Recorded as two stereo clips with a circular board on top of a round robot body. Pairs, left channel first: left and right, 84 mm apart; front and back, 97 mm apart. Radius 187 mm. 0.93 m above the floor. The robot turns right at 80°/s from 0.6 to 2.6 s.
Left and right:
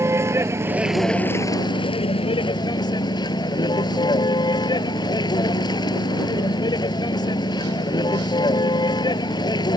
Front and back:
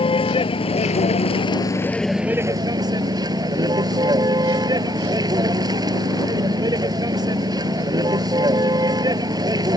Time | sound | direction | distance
0.0 | a vehicle | 30° right | ?